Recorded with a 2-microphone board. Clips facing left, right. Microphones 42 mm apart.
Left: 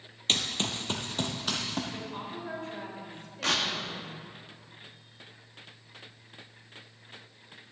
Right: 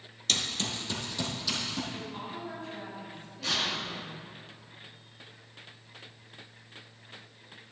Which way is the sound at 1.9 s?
60° left (ahead or behind).